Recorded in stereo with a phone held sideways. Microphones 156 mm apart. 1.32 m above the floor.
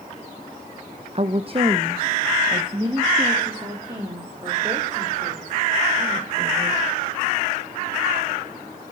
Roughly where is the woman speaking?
Right.